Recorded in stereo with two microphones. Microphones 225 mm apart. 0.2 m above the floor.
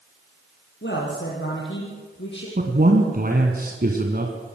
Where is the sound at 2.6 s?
45° right (ahead or behind), 2 m.